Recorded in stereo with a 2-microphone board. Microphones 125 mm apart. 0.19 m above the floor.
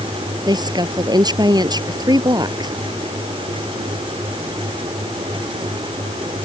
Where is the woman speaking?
35° right (ahead or behind).